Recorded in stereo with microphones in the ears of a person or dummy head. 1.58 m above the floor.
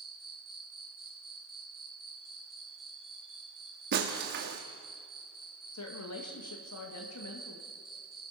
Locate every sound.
0.0 s an insect: 5° left (ahead or behind), 0.8 m
3.9 s breaking glass: 45° right (ahead or behind), 1.7 m
5.7 s a woman speaking: 85° left, 2.5 m